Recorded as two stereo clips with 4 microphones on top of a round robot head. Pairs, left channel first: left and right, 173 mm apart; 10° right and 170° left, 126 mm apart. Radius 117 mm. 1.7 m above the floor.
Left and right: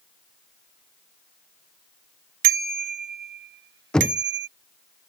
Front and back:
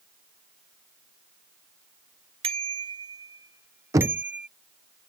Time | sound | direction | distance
2.4 | a bicycle bell | 125° right | ?
3.9 | knocking | 170° left | ?